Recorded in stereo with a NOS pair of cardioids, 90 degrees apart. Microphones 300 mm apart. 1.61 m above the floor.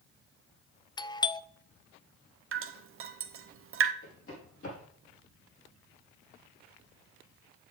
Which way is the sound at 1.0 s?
15° left.